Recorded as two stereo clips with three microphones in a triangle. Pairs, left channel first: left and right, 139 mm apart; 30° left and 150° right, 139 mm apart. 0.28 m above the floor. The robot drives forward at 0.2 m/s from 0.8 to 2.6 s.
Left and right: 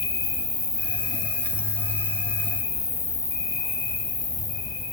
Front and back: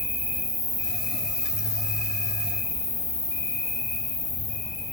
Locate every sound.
0.0 s an insect: 140° right, 3 m; by 4.9 s 145° right, 3 m